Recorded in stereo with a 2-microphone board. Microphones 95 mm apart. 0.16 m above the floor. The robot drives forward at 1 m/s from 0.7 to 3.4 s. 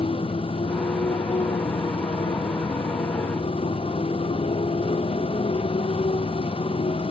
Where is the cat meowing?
No cat meowing in this recording.